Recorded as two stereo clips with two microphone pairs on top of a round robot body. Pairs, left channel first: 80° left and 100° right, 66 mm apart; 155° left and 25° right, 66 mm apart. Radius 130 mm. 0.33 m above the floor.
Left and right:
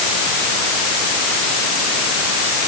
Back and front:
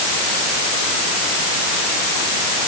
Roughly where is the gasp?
No gasp in this recording.